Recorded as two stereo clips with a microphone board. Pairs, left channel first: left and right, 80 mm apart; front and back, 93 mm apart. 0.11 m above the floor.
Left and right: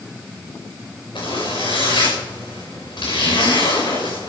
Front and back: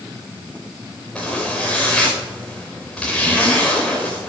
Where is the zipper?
85° left, 8.5 m.